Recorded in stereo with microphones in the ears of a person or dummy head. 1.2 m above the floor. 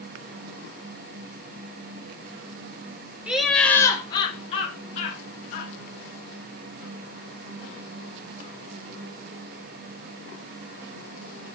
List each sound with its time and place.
3.3 s laughter: 5° right (ahead or behind), 0.7 m; by 5.7 s 50° left (ahead or behind), 1.5 m